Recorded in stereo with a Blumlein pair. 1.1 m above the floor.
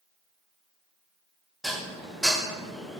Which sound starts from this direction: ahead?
Dishes clattering, at 1.6 s.